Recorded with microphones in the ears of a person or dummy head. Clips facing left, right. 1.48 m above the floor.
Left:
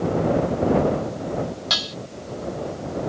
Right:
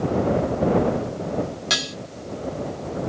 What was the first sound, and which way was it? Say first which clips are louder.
Dishes clattering: right 2 dB; 25° right (ahead or behind).